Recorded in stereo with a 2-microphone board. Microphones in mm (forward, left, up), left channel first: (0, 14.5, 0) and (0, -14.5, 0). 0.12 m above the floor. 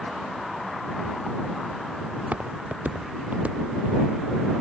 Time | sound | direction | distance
2.2 | footsteps | 55° right (ahead or behind) | ?